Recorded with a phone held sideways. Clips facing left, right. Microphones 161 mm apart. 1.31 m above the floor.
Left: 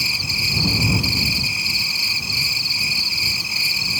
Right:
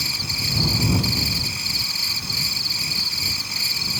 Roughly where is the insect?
Centre.